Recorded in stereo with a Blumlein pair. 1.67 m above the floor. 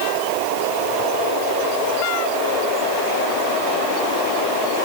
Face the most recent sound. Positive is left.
No sound to turn to.